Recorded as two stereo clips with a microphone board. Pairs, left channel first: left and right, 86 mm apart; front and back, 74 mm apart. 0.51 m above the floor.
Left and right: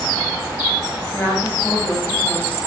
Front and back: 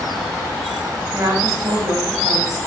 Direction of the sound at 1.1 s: 155° left.